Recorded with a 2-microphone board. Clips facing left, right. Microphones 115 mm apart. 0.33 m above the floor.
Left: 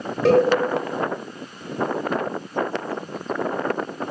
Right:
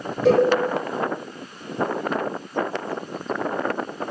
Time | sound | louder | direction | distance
0.2 | a cowbell | left 1 dB | 85° left | 0.8 m